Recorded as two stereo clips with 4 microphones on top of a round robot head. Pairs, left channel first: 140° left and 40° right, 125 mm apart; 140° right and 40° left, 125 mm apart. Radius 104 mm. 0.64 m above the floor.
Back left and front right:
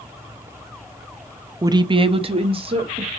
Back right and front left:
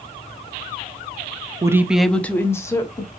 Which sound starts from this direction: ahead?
A woman speaking, at 1.6 s.